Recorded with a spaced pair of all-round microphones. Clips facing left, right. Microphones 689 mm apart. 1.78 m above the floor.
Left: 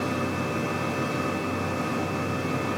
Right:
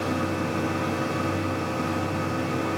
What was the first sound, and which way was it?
A machine running, centre (ahead or behind).